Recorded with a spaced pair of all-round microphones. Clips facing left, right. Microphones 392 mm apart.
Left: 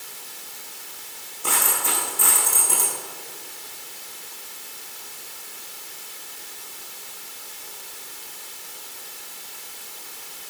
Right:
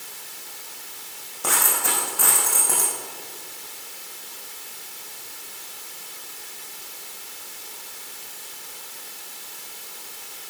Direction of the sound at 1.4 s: 80° right.